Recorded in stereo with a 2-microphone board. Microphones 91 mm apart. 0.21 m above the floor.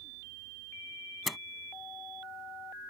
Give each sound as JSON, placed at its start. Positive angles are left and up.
{"t": 1.3, "sound": "a door slam", "side_deg": 0}